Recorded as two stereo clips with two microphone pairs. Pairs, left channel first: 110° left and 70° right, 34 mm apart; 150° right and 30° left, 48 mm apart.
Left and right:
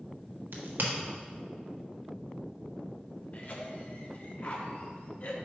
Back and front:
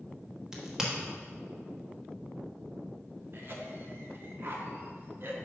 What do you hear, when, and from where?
0.5 s a crack: 50° right, 1.2 m
3.3 s a cough: 70° left, 1.2 m